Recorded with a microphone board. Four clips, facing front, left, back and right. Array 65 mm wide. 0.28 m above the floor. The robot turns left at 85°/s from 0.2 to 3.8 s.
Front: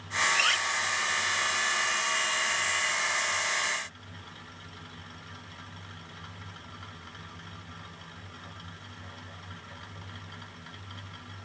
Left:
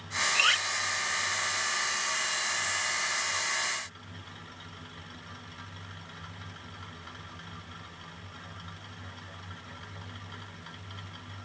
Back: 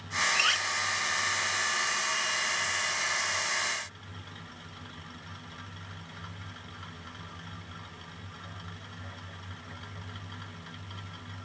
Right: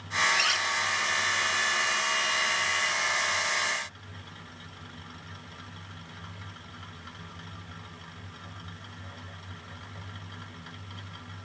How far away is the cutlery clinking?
About 0.5 m.